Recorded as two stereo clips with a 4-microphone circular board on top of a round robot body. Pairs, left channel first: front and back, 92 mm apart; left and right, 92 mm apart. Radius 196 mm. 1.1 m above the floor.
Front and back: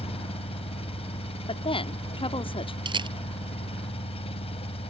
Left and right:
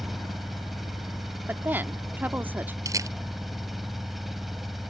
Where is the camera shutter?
145° right.